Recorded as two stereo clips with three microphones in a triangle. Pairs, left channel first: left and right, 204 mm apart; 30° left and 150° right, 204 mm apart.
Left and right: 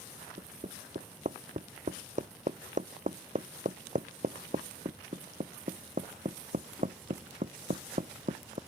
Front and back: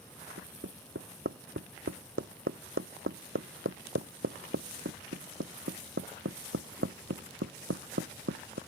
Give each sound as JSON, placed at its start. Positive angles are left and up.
{"t": 0.4, "sound": "hammering", "azimuth_deg": -145}